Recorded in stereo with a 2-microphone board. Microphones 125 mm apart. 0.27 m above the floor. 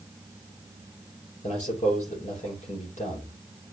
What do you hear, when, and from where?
1.4 s a man speaking: 75° left (ahead or behind), 7 m